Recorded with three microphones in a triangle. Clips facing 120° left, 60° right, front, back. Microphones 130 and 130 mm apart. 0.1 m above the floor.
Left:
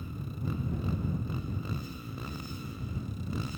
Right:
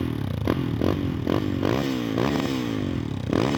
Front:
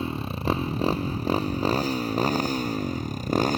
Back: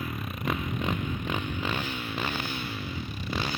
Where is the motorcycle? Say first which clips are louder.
Right 12 dB, front 5 dB; 60° right; by 3.6 s 45° right.